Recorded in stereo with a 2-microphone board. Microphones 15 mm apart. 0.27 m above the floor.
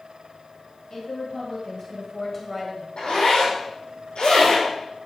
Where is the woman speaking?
55° left (ahead or behind), 2.5 m; by 2.9 s 10° right (ahead or behind), 1.6 m.